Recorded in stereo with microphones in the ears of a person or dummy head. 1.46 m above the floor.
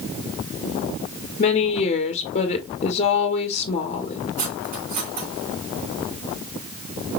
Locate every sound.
1.4 s a woman speaking: 40° left (ahead or behind), 1.4 m
4.4 s cutlery clinking: 45° right (ahead or behind), 2.5 m